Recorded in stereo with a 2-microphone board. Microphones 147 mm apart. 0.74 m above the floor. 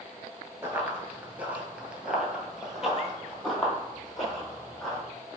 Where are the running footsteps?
15° right (ahead or behind), 0.7 m; by 5.0 s centre (ahead or behind), 2 m.